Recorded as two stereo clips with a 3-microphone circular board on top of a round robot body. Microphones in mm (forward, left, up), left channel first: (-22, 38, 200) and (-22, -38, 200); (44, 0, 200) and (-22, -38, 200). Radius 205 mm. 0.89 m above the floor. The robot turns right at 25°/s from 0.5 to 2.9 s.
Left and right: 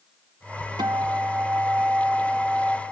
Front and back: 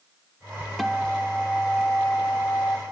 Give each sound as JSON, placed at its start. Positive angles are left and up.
{"t": 0.8, "sound": "a guitar", "azimuth_deg": -60, "distance_m": 0.9}